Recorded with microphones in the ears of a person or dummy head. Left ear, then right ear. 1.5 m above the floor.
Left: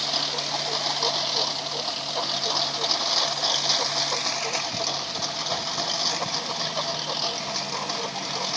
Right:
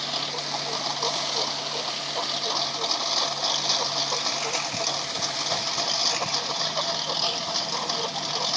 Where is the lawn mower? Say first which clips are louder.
Left 3 dB; 15° left (ahead or behind); by 8.6 s 5° right (ahead or behind).